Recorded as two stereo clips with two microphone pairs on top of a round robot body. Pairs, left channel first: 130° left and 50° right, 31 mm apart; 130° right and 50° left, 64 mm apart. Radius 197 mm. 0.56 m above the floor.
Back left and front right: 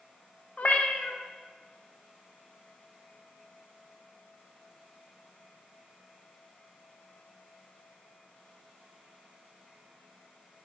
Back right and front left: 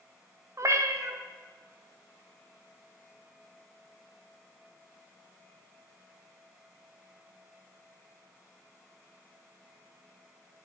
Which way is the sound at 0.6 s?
90° left.